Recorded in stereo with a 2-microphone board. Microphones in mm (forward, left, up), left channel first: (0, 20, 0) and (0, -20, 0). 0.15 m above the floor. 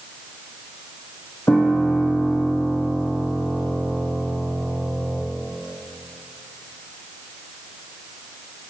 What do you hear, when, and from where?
1.5 s a piano: 70° left (ahead or behind), 3 m